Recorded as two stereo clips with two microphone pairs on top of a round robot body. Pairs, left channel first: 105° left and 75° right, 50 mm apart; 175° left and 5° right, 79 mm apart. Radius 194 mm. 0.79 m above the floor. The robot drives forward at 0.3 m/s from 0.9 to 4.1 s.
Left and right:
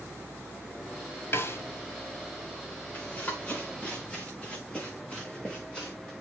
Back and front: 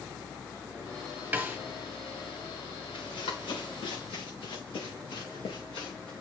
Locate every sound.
1.3 s a snare drum: 70° left, 2 m
2.9 s running footsteps: 165° left, 5.5 m; by 6.1 s straight behind, 4.5 m